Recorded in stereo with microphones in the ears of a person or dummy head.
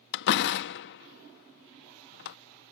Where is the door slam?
65° left (ahead or behind).